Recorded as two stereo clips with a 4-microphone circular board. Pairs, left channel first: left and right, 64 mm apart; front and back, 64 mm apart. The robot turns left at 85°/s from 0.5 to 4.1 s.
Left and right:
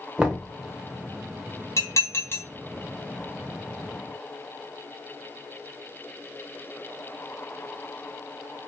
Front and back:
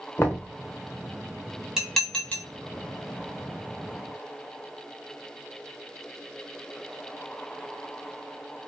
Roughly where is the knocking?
Ahead right.